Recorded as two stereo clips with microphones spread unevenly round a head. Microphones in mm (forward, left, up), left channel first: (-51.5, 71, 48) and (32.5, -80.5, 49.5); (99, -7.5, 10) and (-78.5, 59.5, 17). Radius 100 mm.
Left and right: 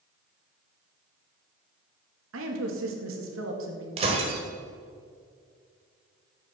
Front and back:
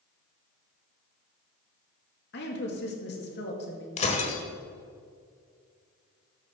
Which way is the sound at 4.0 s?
35° right.